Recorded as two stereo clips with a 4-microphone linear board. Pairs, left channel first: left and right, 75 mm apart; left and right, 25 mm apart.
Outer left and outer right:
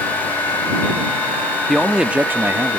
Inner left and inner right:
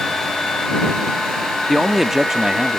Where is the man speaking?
5° left (ahead or behind); by 2.8 s 40° right (ahead or behind).